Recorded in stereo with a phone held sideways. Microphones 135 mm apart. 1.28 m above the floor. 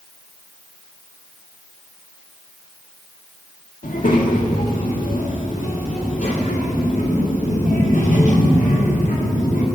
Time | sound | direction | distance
3.8 | a child speaking | 80° left | 1.6 m